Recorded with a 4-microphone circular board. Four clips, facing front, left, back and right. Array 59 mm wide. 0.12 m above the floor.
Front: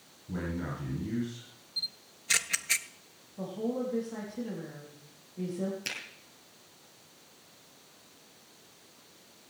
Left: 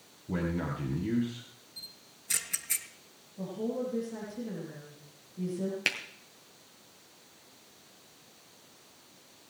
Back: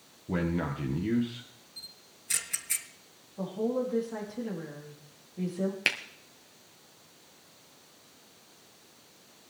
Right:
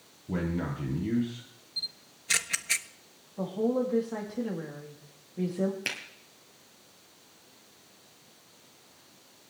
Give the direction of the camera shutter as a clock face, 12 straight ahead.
2 o'clock.